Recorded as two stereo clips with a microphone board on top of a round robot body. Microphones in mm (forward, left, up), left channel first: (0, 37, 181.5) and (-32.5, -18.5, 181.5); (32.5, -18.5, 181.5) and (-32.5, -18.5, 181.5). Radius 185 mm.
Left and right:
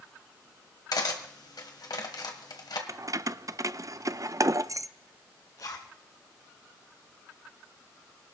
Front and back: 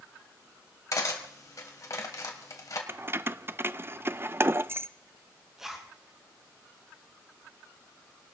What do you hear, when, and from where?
0.9 s cutlery clinking: 40° left, 1.8 m
2.9 s keys jangling: 130° right, 0.6 m
5.6 s a zipper: 95° left, 1.8 m